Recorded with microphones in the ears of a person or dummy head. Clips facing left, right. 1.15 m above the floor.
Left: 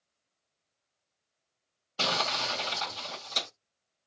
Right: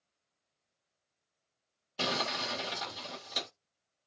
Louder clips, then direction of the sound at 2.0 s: Left 2 dB; 10° right (ahead or behind).